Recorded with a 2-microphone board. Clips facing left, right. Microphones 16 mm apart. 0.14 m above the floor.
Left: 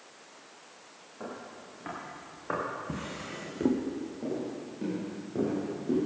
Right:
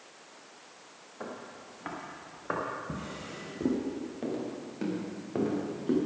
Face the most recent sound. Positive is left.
turn(degrees=-40)  # may be behind; listen again after turning